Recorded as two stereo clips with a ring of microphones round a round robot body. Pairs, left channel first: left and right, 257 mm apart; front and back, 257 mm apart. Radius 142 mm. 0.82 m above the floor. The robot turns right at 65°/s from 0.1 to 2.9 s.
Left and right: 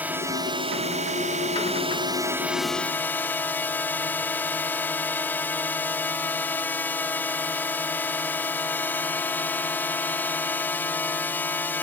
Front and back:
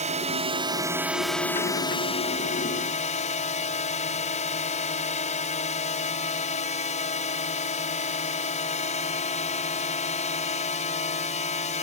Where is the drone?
165° right; by 11.8 s 15° left.